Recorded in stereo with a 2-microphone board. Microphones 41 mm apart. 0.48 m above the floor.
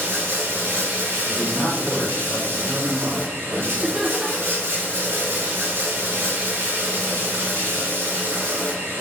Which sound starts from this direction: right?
Running water, at 0.0 s.